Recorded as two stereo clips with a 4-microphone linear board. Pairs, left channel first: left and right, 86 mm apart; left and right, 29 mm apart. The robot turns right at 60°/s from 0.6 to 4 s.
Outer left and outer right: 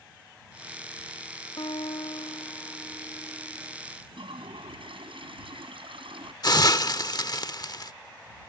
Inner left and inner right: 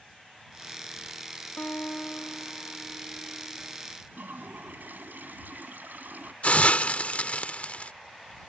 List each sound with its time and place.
1.6 s a guitar: 70° left; by 3.8 s 160° right
4.1 s a toilet flushing: 85° right
6.4 s a hiss: 50° left (ahead or behind)